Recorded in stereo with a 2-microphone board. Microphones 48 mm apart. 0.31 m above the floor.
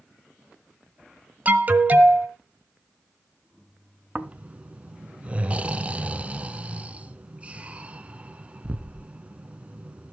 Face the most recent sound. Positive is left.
turn(degrees=-25)  # may be behind; listen again after turning